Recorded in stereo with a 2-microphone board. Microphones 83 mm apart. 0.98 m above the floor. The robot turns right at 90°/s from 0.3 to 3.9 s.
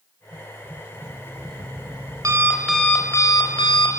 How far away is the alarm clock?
About 3 m.